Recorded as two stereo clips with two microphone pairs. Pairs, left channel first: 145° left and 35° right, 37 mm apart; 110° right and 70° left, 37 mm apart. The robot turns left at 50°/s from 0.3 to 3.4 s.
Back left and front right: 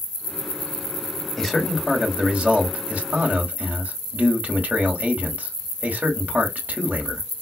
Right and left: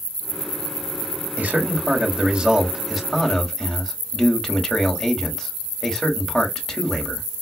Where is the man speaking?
60° left, 1.4 m; by 7.2 s 40° right, 1.4 m.